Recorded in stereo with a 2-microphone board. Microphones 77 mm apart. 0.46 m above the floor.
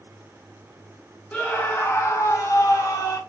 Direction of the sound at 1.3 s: 15° left (ahead or behind).